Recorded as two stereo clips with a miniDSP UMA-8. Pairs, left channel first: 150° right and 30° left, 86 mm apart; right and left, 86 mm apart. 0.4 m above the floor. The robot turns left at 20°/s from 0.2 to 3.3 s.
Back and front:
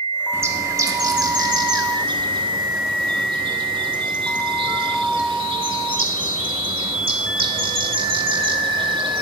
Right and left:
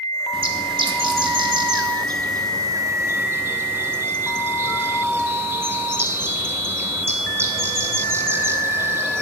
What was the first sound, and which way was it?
A bird, 90° left.